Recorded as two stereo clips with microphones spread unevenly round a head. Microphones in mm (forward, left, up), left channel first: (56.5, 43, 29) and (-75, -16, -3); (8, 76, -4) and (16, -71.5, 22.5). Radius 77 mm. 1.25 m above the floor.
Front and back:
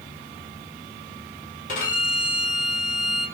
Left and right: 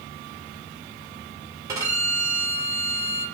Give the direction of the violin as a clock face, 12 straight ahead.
1 o'clock.